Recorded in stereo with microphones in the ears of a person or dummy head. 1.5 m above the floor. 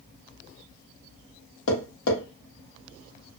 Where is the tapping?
70° left (ahead or behind), 1.0 m.